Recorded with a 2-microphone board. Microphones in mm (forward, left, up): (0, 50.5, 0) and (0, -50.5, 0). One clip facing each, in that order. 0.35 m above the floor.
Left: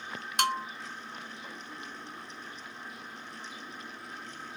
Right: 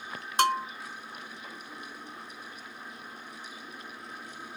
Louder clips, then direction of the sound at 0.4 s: Right 5 dB; 35° right (ahead or behind).